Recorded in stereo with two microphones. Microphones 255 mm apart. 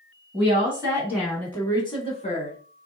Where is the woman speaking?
30° right (ahead or behind), 1.7 m; by 2.6 s 35° left (ahead or behind), 1.9 m.